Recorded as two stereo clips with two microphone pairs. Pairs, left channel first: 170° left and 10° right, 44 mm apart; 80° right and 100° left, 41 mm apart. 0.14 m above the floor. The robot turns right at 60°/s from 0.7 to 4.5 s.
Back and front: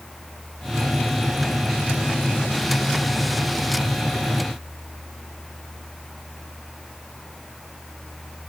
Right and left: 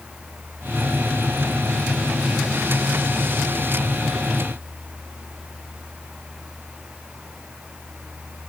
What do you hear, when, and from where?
Only background noise.